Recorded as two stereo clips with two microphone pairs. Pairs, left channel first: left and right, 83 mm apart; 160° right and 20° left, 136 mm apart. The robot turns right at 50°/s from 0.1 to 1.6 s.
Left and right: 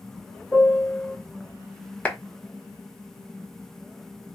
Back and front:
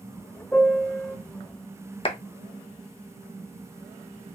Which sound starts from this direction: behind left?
A piano, at 0.5 s.